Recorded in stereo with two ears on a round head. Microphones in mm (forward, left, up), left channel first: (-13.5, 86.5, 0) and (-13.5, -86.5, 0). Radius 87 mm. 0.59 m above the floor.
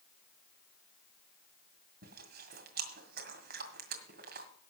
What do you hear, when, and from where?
2.0 s chewing: 50° right (ahead or behind), 1.9 m